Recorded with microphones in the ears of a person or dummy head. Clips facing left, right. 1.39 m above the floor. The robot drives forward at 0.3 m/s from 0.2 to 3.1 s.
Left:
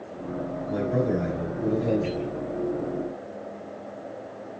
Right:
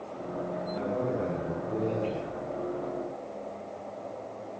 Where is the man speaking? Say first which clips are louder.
Left 7 dB; 80° left, 8.5 m.